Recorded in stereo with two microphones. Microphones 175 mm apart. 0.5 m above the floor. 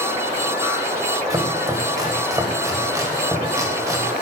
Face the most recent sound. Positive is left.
turn(degrees=-20)  # may be behind; listen again after turning